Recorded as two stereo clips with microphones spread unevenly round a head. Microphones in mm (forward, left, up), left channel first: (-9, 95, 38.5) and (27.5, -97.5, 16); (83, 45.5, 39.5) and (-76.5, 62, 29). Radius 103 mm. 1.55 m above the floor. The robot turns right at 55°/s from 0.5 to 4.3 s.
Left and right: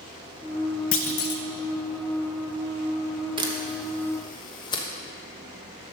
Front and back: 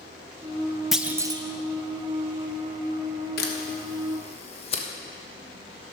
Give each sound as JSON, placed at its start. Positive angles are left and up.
{"t": 0.9, "sound": "a clunk", "azimuth_deg": 85, "distance_m": 0.6}
{"t": 3.4, "sound": "a camera shutter", "azimuth_deg": -10, "distance_m": 1.1}